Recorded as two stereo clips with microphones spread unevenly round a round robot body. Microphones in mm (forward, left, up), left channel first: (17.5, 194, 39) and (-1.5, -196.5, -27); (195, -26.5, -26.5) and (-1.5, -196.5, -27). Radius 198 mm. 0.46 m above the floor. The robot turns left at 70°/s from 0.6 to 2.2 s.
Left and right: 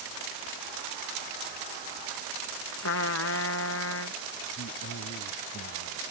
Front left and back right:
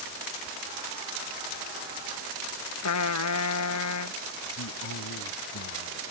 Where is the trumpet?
35° left.